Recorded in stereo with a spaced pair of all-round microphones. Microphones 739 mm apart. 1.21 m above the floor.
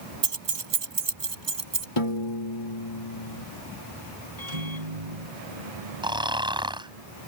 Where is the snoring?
5° right (ahead or behind).